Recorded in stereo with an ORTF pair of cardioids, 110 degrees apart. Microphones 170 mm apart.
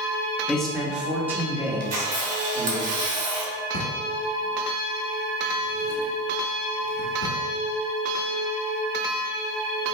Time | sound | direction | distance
0.5 | a man speaking | 5° left | 1.2 m
1.8 | a camera shutter | 55° right | 1.4 m
3.7 | a drawer | 60° left | 1.6 m